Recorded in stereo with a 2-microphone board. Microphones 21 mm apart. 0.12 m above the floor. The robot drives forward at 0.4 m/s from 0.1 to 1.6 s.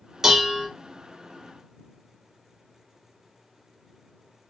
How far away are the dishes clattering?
About 0.8 m.